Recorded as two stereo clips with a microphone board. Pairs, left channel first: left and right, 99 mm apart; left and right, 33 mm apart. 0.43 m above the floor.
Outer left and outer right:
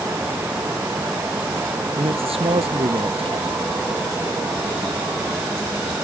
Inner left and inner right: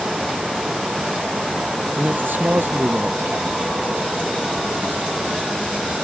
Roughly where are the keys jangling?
No keys jangling in this recording.